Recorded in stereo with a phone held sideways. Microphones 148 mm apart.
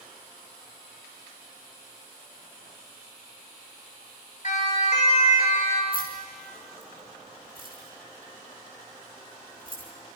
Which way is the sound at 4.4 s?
55° left (ahead or behind).